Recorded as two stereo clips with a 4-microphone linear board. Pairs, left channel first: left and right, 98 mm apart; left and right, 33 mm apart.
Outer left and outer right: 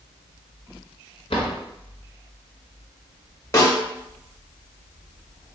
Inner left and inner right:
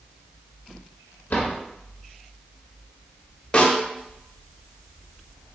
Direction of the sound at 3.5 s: 35° left (ahead or behind).